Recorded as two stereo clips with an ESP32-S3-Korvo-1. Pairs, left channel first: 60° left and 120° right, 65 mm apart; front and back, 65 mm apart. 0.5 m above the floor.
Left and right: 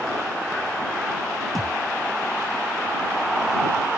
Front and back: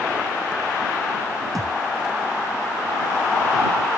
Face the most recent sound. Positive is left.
turn(degrees=-150)